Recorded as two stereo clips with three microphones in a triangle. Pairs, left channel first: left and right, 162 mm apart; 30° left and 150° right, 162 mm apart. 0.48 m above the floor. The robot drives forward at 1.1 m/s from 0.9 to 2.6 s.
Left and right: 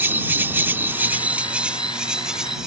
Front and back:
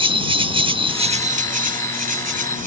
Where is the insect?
155° right; by 2.7 s 175° right.